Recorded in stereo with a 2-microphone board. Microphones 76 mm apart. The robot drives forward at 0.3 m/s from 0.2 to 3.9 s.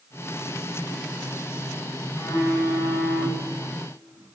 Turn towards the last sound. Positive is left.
turn(degrees=60)  # may be behind; listen again after turning